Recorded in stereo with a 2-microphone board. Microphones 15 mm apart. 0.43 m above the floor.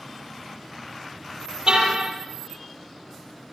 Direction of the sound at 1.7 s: 65° right (ahead or behind).